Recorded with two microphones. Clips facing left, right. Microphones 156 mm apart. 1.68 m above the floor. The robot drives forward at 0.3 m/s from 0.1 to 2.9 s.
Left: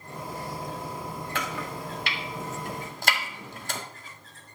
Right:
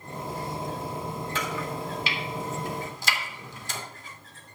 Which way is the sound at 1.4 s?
65° left (ahead or behind).